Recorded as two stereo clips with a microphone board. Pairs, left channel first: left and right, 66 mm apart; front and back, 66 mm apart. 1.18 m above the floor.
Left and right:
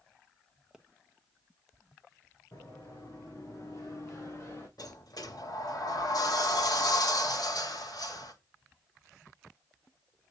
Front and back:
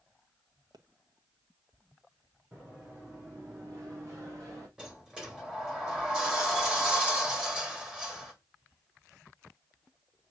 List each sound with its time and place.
0.7 s a pop: 170° right, 1.2 m
2.5 s running footsteps: 120° left, 4 m; by 4.7 s 140° left, 4 m
4.8 s a sliding door: 100° left, 2.5 m